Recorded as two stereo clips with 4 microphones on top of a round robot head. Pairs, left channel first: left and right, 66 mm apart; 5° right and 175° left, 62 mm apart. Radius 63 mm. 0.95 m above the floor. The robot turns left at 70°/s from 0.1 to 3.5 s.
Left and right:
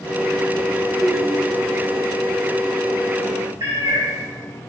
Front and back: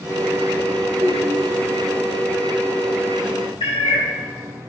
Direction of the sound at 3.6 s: 35° right.